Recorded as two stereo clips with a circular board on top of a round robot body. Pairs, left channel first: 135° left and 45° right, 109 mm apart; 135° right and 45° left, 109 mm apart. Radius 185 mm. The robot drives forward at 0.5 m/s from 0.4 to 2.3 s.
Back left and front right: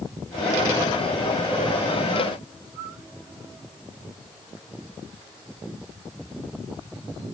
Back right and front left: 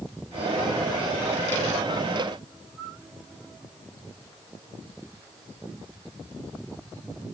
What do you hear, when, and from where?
Only background noise.